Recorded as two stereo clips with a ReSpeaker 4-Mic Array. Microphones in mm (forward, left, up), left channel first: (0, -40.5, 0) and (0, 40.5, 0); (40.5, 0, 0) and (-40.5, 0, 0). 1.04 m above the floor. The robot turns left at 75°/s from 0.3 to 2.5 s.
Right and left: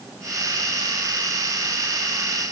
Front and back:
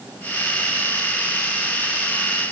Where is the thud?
No thud in this recording.